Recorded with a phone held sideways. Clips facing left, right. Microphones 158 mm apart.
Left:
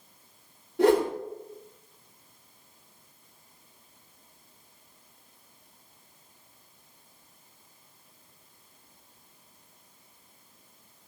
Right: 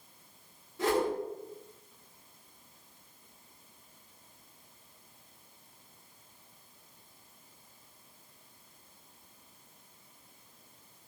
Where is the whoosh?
60° left (ahead or behind), 2.5 m.